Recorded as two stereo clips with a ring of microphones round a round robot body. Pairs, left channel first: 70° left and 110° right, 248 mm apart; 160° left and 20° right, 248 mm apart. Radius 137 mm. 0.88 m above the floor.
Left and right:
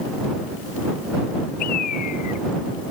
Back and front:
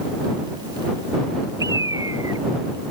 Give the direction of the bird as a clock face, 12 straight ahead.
10 o'clock.